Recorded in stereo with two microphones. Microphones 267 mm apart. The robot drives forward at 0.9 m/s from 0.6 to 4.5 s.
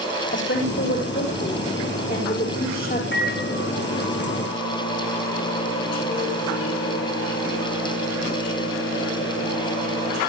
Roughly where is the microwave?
Left.